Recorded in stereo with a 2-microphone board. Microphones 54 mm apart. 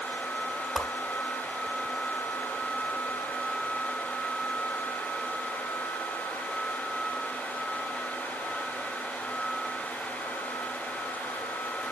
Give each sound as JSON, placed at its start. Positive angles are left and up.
{"t": 0.8, "sound": "a whoosh", "side_deg": -10, "distance_m": 1.9}